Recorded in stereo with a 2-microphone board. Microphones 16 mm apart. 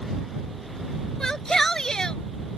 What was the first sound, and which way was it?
A shout, 35° left (ahead or behind).